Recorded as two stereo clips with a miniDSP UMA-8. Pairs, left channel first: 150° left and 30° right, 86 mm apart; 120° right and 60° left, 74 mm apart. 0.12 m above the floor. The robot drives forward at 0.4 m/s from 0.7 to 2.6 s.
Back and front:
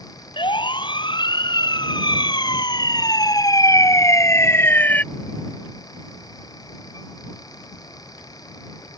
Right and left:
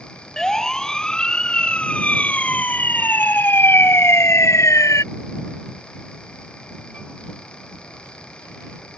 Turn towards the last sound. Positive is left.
turn(degrees=-145)